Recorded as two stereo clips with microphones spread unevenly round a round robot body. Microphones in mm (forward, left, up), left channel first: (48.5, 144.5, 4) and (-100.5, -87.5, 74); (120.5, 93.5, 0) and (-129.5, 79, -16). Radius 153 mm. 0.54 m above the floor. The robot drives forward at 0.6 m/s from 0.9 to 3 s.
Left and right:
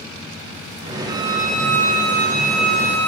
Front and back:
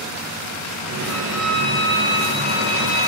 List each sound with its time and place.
1.1 s a violin: 160° left, 2 m; by 3.1 s 170° left, 3.5 m